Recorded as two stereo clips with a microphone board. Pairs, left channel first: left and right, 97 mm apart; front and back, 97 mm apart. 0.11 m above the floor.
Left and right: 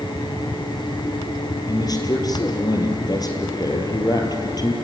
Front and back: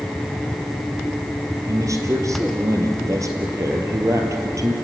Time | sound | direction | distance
1.7 | a man speaking | 130° left | 3 m